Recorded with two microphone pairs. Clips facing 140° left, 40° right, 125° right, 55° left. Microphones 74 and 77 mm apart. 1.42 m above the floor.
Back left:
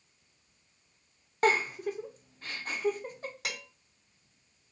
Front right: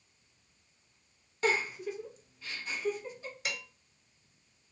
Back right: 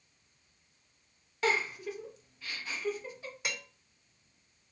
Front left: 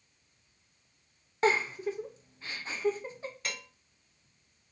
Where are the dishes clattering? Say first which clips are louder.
Front right 2 dB, back right 3 dB; 160° left, 3 m.